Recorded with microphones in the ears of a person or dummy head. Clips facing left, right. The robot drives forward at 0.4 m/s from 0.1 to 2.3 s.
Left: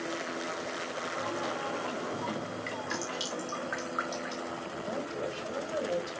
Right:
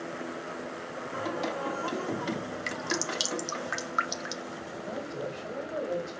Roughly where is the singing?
Right.